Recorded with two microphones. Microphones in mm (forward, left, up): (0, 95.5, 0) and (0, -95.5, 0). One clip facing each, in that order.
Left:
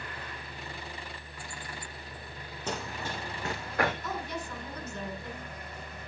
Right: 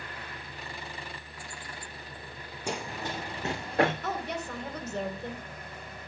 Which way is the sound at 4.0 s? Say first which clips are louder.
Right 3 dB; 65° right (ahead or behind).